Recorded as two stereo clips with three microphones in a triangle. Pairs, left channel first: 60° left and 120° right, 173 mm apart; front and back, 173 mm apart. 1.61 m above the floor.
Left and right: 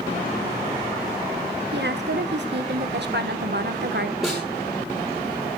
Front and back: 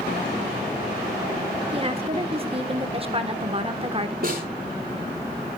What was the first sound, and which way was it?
A woman speaking, 125° right.